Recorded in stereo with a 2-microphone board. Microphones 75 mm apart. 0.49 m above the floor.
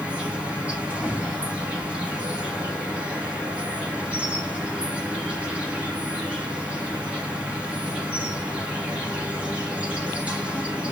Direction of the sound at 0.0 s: 15° right (ahead or behind).